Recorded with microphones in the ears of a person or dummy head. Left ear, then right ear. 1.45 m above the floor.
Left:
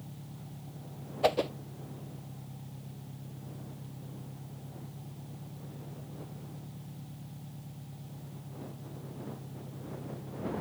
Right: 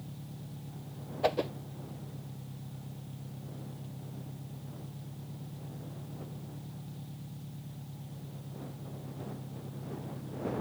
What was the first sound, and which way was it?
An engine running, 10° right (ahead or behind).